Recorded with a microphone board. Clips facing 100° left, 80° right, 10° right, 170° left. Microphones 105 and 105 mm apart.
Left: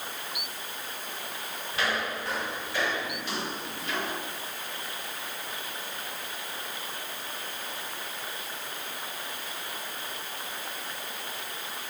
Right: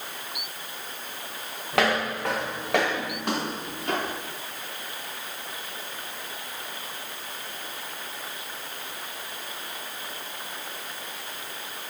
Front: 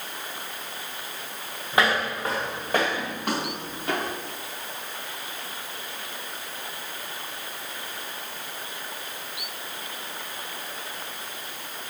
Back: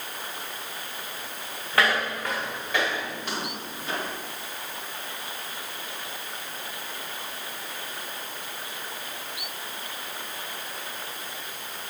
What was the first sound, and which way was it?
Footsteps, 85° right.